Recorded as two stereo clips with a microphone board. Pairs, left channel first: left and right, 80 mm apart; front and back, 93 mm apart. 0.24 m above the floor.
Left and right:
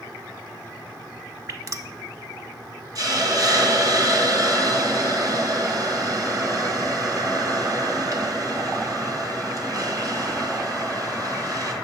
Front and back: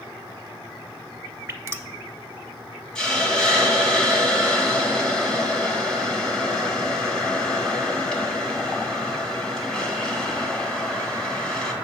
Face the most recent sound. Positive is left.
turn(degrees=-80)